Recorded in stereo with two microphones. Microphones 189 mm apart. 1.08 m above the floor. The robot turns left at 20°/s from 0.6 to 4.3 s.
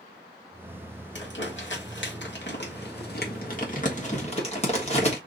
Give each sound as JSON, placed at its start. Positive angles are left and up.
{"t": 1.1, "sound": "crumpling", "side_deg": 75, "distance_m": 1.3}